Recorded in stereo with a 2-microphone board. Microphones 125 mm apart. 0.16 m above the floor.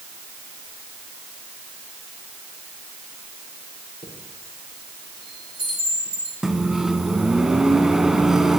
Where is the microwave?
5° right (ahead or behind), 1.0 m.